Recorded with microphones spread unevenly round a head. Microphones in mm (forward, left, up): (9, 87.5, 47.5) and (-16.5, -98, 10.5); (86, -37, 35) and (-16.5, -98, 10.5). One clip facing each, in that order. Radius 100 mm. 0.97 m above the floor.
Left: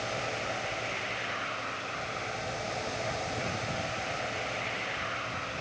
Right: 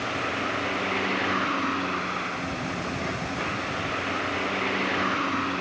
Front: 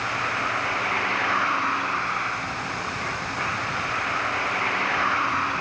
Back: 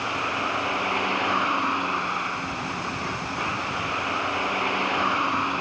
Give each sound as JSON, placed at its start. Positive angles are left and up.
{"t": 0.0, "sound": "a vehicle", "azimuth_deg": -80}